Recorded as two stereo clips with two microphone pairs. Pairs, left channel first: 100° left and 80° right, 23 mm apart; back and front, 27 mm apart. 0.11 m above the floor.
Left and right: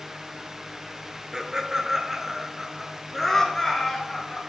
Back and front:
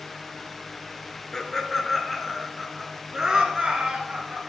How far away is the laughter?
About 1.3 m.